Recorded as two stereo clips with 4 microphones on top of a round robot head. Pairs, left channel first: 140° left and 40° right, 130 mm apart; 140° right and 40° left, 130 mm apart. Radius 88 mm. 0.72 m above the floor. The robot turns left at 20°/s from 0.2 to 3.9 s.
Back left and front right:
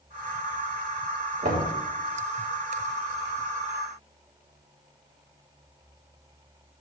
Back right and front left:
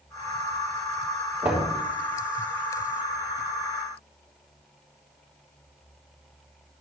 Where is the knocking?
40° right, 3 m; by 1.8 s 45° right, 3 m.